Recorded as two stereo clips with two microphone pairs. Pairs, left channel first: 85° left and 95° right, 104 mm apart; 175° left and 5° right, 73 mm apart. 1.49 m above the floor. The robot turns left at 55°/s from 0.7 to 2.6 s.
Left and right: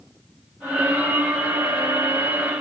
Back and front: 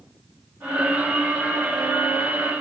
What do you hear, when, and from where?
Only background noise.